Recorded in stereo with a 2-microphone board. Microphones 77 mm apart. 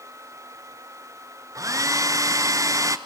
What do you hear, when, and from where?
1.6 s a hair dryer: 45° right (ahead or behind), 0.8 m